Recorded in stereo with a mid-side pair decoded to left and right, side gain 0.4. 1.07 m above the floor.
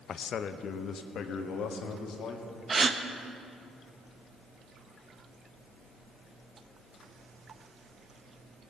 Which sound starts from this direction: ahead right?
A gasp, at 2.7 s.